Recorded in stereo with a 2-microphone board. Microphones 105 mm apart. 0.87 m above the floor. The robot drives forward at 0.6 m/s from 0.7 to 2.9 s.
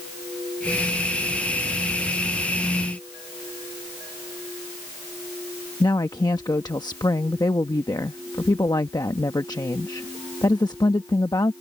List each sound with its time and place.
5.8 s a woman speaking: 40° left (ahead or behind)